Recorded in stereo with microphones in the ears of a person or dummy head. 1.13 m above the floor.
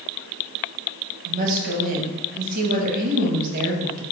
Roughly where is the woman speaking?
Right.